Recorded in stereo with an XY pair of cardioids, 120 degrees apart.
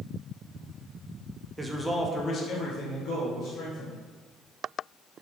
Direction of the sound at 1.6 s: 15° right.